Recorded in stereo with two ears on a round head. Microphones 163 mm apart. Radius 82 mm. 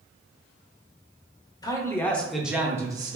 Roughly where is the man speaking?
Left.